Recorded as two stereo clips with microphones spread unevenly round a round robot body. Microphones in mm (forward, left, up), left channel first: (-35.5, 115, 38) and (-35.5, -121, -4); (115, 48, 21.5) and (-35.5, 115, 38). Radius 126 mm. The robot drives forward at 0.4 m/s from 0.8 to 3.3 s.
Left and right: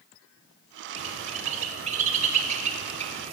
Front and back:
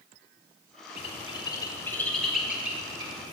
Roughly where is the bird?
Ahead right.